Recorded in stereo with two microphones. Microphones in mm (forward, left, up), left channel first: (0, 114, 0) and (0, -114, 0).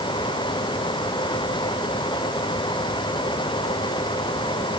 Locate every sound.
Only background noise.